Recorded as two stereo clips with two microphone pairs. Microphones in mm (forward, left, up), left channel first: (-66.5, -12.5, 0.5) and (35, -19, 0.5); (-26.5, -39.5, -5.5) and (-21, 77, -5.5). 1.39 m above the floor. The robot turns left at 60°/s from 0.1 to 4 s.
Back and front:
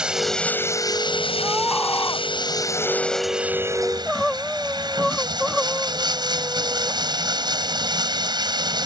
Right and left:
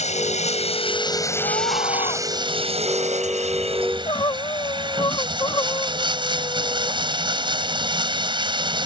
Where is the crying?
90° right; by 7.0 s 100° right.